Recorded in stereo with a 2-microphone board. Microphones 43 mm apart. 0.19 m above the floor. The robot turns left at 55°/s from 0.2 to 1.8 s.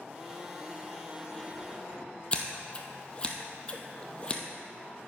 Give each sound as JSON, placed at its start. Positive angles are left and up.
{"t": 2.3, "sound": "scissors", "side_deg": 25, "distance_m": 1.1}